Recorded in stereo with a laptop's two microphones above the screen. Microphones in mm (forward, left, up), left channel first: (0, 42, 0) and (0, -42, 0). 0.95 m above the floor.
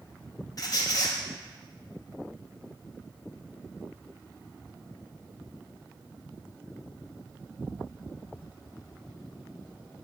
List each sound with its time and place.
0.6 s a squeak: 50° left (ahead or behind), 0.6 m